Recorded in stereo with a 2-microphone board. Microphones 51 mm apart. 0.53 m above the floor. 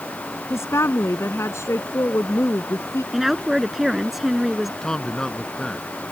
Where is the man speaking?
15° left (ahead or behind).